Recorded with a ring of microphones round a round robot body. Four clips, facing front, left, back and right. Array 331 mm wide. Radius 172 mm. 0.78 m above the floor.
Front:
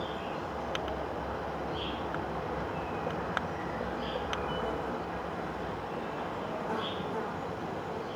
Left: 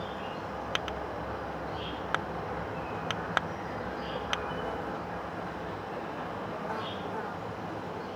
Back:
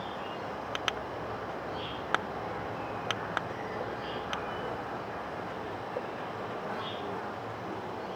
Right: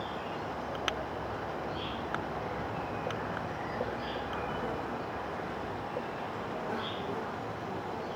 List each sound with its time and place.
0.0 s an insect: 35° left, 4.5 m